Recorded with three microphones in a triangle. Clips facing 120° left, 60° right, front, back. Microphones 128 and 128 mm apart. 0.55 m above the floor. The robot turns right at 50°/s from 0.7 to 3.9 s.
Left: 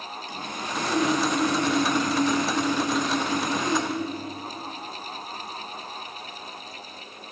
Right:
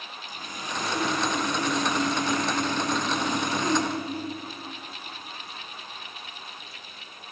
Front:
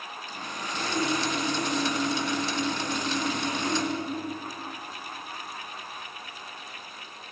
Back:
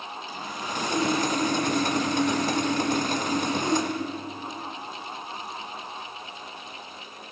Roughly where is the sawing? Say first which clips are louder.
Left 3 dB, back 2 dB; left.